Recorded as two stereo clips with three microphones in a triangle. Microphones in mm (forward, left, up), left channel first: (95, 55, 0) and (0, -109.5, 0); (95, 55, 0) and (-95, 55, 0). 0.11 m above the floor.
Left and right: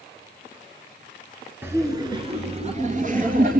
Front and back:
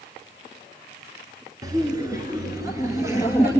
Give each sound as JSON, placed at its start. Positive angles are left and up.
{"t": 1.6, "sound": "laughter", "azimuth_deg": -175, "distance_m": 1.2}